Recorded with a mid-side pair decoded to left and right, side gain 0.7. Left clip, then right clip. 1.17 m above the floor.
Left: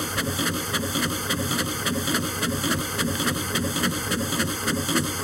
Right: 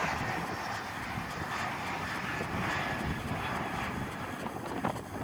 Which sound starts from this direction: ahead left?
A machine running, at 0.0 s.